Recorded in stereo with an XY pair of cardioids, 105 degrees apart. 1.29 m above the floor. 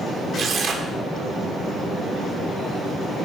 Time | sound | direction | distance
0.3 | tearing paper | 55° right | 0.9 m